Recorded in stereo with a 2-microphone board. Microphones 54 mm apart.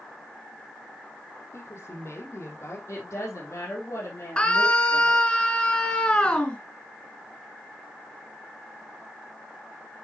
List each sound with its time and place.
1.5 s a woman speaking: 55° left (ahead or behind), 4.5 m; by 2.8 s 60° left (ahead or behind), 5.5 m
2.9 s a woman speaking: 65° left (ahead or behind), 4.5 m
4.4 s a scream: 20° left (ahead or behind), 1.7 m